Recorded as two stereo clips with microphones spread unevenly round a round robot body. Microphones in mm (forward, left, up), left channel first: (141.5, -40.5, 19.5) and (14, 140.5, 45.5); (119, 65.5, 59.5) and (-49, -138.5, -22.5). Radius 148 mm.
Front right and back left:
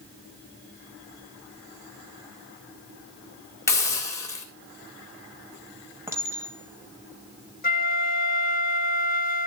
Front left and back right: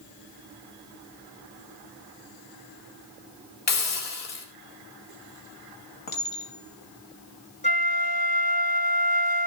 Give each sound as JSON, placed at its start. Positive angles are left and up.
{"t": 3.7, "sound": "a hiss", "azimuth_deg": 20, "distance_m": 3.5}
{"t": 6.1, "sound": "a clink", "azimuth_deg": 50, "distance_m": 3.0}
{"t": 7.6, "sound": "a flute", "azimuth_deg": -5, "distance_m": 1.6}